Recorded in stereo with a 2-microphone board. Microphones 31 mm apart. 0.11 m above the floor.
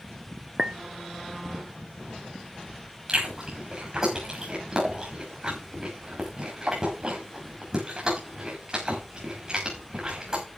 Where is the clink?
30° right (ahead or behind), 0.7 m.